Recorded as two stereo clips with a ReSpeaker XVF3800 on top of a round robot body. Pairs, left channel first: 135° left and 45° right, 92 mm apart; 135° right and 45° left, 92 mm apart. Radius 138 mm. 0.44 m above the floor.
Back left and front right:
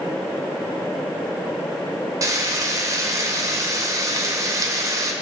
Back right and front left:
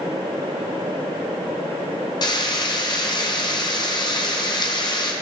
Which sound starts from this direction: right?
Frying, at 2.2 s.